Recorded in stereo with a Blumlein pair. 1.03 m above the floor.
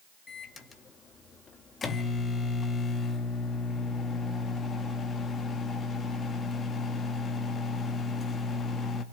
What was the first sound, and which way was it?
A microwave, 15° left.